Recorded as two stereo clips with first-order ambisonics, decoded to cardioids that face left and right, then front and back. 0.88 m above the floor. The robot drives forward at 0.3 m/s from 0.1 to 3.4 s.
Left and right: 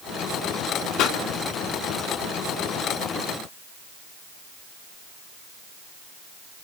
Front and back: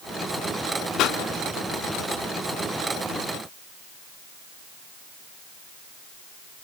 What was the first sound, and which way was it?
A pop, 55° left.